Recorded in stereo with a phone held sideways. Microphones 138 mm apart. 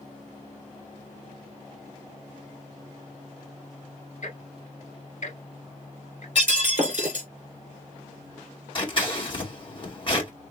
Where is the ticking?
60° left (ahead or behind), 2 m.